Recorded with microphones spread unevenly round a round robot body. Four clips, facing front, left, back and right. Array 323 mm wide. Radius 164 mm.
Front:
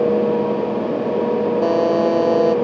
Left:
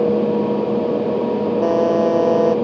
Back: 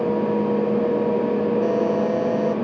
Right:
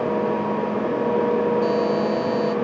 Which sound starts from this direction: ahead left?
A buzzer, at 1.6 s.